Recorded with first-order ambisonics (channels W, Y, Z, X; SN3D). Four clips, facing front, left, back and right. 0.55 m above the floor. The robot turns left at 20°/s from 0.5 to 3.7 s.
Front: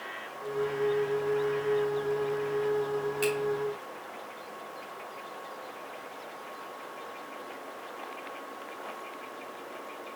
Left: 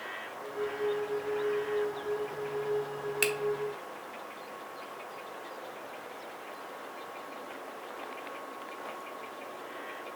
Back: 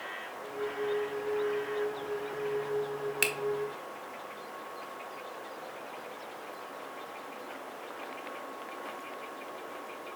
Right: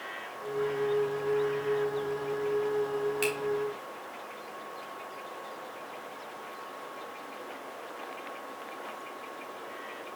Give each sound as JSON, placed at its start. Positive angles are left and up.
{"t": 3.2, "sound": "a finger snap", "azimuth_deg": 155, "distance_m": 0.9}